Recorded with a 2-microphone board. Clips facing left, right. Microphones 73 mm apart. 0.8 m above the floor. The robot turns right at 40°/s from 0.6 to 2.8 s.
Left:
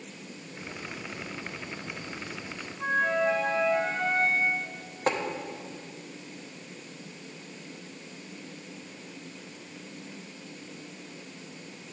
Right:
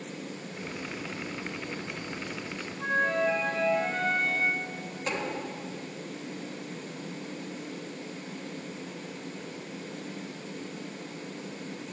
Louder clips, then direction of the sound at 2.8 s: Left 1 dB; 15° left (ahead or behind).